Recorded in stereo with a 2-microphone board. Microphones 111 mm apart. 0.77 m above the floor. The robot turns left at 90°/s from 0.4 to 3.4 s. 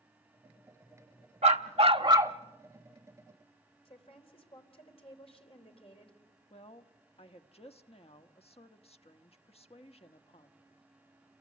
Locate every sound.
1.4 s a dog barking: 80° right, 1.0 m; by 2.4 s 160° right, 1.0 m
3.9 s a woman speaking: 55° left (ahead or behind), 4 m
6.5 s a woman speaking: 60° left (ahead or behind), 1.1 m